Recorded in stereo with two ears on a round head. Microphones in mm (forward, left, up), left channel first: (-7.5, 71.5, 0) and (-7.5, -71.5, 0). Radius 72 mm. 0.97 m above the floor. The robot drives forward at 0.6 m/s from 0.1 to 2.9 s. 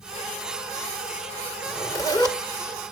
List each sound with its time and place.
1.6 s a zipper: 20° left (ahead or behind), 2 m; by 2.4 s 25° left (ahead or behind), 1.7 m